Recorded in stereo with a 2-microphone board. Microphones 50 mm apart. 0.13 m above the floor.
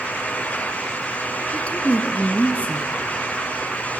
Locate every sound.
1.5 s a woman speaking: 25° left (ahead or behind), 1.8 m